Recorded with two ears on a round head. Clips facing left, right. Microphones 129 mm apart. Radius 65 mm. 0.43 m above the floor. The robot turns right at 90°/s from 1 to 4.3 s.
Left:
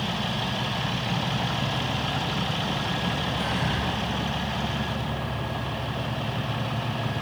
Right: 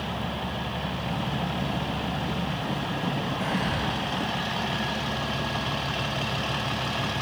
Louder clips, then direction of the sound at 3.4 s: Right 1 dB; 65° left (ahead or behind).